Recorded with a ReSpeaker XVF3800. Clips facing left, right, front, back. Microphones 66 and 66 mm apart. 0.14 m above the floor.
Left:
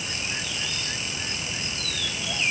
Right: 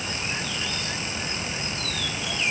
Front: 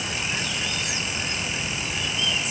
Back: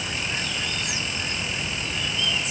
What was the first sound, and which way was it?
Only background noise.